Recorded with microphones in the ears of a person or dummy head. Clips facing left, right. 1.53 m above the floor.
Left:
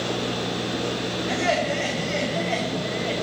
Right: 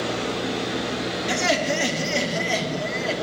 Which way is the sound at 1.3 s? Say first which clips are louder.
Even; 55° right (ahead or behind).